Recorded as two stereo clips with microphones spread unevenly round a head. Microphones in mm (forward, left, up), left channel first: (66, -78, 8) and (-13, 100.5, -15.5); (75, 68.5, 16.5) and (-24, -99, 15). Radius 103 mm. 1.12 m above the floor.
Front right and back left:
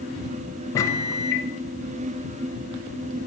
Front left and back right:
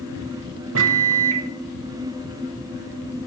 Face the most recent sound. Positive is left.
turn(degrees=-145)